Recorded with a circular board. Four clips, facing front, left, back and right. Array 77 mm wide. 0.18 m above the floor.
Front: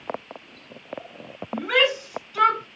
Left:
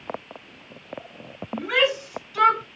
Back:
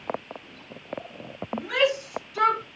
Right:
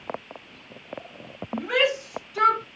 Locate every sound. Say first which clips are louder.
1.5 s a shout: left 1 dB, front 2 dB; 5° left, 1.7 m; by 2.6 s 55° left, 1.7 m